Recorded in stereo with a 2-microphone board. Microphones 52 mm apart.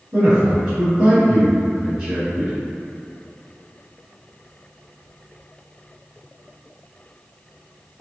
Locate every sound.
0.1 s a man speaking: 15° right (ahead or behind), 1.6 m